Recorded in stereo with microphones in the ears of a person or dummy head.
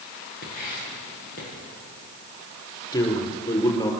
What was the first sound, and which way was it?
Writing, 50° left (ahead or behind).